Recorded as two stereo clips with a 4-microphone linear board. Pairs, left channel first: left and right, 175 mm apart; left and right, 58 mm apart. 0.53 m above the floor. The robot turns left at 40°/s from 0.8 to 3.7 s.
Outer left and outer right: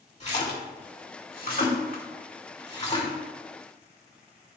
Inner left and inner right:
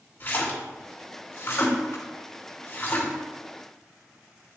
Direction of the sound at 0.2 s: 40° left (ahead or behind).